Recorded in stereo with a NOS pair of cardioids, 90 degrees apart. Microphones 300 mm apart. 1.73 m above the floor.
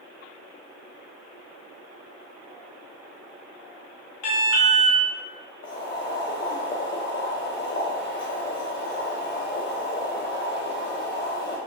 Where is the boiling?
40° left, 1.0 m.